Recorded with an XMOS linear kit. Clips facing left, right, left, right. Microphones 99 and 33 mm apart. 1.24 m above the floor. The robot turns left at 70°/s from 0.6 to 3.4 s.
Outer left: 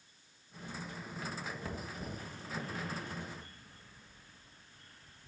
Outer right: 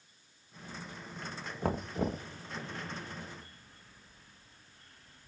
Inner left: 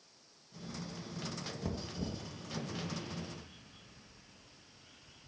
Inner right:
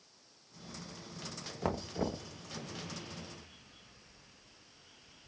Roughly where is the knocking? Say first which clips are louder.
Outer right 10 dB, inner right 8 dB; ahead right.